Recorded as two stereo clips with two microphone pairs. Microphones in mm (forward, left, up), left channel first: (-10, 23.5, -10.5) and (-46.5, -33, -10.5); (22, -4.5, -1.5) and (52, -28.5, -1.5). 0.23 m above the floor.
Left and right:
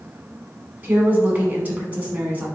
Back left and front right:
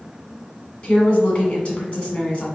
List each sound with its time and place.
0.8 s a woman speaking: straight behind, 1.5 m